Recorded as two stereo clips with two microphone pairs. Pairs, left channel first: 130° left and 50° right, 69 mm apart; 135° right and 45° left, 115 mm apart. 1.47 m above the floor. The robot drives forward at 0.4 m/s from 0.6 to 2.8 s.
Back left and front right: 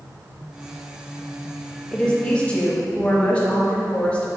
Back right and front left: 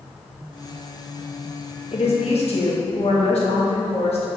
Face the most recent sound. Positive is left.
turn(degrees=-160)